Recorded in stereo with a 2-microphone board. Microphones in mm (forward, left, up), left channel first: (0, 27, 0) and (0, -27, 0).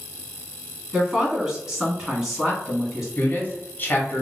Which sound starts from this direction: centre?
A woman speaking, at 0.9 s.